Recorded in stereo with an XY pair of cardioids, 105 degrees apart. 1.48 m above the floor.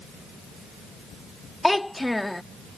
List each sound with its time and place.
1.6 s a child speaking: 5° left